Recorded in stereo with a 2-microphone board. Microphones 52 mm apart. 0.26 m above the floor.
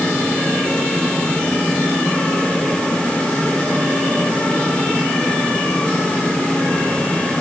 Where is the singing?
No singing in this recording.